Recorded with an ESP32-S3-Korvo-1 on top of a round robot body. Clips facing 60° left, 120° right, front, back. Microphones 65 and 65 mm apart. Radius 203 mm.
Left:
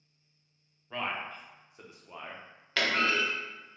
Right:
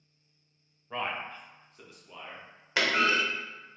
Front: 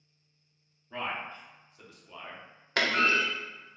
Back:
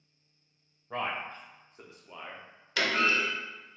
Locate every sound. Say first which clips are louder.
0.9 s a man speaking: right 1 dB, back 2 dB; 165° left, 1.0 m; by 2.7 s 85° left, 0.9 m
2.8 s a clunk: right 2 dB, front 1 dB; 45° right, 0.7 m